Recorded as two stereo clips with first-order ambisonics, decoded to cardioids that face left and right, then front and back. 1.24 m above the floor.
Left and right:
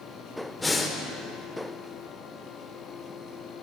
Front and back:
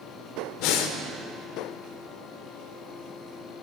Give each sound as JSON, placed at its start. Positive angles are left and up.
{"t": 0.6, "sound": "breathing", "azimuth_deg": 5, "distance_m": 0.8}